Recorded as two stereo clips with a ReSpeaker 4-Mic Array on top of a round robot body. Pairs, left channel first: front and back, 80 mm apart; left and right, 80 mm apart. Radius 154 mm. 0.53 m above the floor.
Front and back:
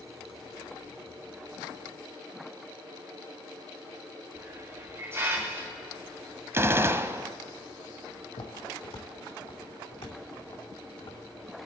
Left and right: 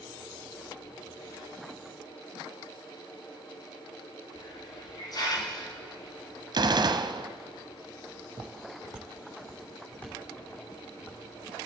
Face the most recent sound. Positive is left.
turn(degrees=25)